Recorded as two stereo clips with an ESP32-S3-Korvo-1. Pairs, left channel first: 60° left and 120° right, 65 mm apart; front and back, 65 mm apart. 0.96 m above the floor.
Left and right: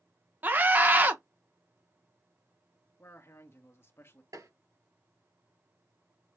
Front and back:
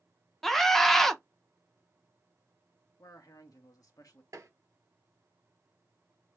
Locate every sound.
0.4 s a scream: 85° right, 0.7 m
3.0 s a man speaking: 15° left, 1.5 m
4.3 s tapping: 140° right, 3 m